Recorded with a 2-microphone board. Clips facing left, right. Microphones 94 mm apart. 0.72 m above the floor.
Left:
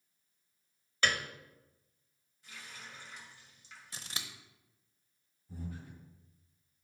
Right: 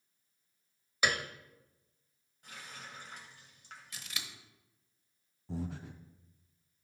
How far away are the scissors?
About 0.9 m.